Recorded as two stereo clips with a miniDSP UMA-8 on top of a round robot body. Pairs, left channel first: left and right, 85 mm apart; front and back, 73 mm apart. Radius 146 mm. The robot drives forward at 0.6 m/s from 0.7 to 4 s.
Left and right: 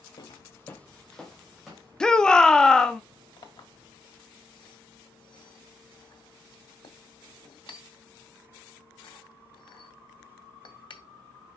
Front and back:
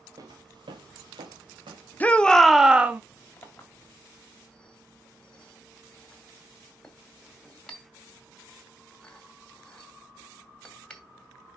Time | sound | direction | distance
0.2 | footsteps | 130° left | 0.6 m
2.0 | a shout | 20° left | 0.9 m
3.4 | a clink | 65° left | 2.0 m